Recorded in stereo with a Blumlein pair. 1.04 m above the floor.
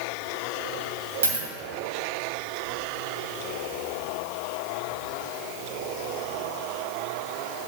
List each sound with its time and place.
1.2 s a dropped coin: 65° right, 2.5 m